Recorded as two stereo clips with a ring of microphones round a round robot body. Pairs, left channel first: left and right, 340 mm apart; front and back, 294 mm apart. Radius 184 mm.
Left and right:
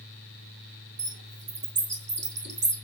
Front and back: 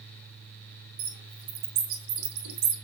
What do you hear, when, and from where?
1.0 s a bird: 150° right, 4 m